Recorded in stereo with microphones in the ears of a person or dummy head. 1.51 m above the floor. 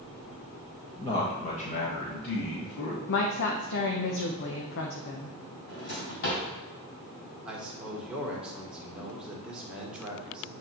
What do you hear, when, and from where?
1.0 s a man speaking: 25° left (ahead or behind), 1.4 m; by 3.0 s 60° left (ahead or behind), 2.5 m
3.1 s a woman speaking: 65° left (ahead or behind), 1.0 m
5.7 s a drawer: 60° left (ahead or behind), 2.5 m
7.5 s a man speaking: 5° right (ahead or behind), 1.8 m